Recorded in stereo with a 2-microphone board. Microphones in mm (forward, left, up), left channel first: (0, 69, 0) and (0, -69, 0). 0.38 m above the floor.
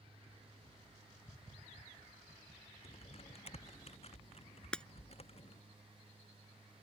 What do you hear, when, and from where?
2.8 s typing on a keyboard: 45° left (ahead or behind)
4.7 s breaking glass: 5° left (ahead or behind)